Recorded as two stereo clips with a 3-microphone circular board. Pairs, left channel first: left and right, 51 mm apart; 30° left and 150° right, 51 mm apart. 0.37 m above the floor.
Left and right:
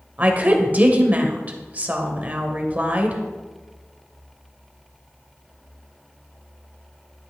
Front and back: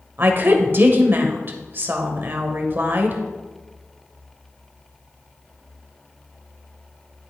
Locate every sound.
0.2 s a woman speaking: 135° right, 1.2 m